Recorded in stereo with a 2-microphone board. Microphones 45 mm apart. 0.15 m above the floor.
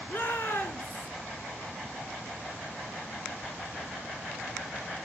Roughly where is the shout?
Left.